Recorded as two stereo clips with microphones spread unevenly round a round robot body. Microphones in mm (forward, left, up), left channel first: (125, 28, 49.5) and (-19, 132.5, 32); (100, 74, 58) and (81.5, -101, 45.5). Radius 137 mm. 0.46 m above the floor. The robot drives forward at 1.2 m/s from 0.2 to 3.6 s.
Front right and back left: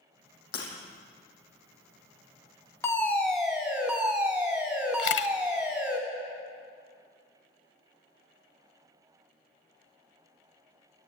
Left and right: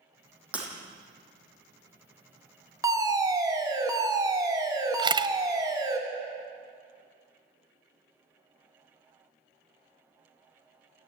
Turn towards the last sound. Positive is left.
turn(degrees=-30)